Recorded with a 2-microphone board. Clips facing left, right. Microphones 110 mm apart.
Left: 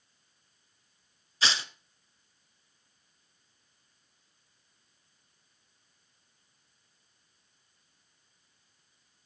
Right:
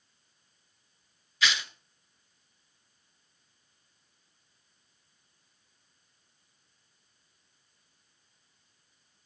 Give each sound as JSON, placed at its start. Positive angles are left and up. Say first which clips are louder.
{"t": 1.4, "sound": "tearing paper", "louder": "right 1 dB", "side_deg": 35, "distance_m": 0.8}